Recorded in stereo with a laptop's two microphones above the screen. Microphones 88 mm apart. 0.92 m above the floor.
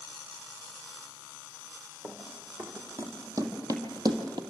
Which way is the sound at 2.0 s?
25° right (ahead or behind).